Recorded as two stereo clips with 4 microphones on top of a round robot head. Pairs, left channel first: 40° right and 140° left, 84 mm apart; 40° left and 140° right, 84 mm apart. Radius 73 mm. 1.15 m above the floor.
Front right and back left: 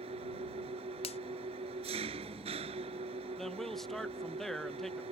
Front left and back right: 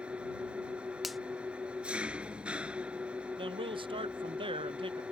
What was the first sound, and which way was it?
An engine running, 145° left.